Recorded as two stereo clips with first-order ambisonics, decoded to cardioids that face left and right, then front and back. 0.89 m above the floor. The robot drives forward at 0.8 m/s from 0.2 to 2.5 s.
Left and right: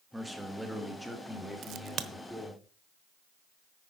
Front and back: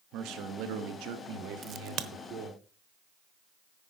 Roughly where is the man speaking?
Behind.